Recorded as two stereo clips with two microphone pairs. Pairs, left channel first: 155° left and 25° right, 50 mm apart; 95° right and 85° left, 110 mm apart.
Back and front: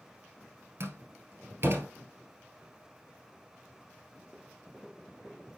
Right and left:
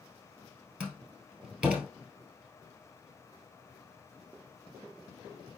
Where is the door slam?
5° left, 1.6 m.